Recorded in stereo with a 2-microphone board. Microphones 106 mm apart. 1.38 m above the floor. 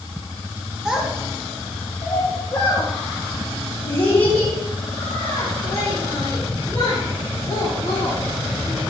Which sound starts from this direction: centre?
A child speaking, at 0.8 s.